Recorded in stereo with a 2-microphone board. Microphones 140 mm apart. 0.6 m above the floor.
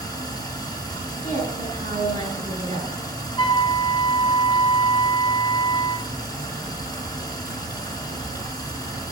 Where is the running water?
30° left (ahead or behind), 5.5 m.